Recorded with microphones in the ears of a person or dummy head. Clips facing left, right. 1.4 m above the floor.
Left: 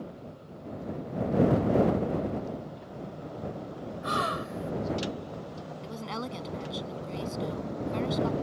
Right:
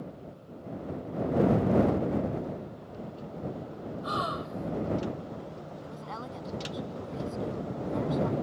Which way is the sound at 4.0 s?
35° left (ahead or behind).